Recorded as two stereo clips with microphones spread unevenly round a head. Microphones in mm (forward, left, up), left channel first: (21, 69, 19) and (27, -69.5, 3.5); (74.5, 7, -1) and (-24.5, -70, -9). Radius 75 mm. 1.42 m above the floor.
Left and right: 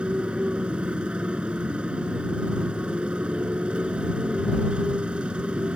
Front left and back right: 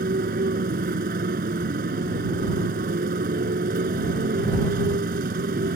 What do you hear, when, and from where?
0.0 s a motorcycle: 175° right